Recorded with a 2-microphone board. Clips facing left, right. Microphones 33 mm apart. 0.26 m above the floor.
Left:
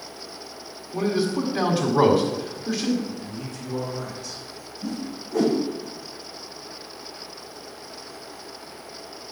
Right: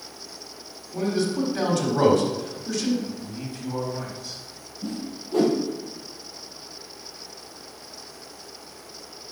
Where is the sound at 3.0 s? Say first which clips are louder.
Even; 35° right (ahead or behind), 2 m.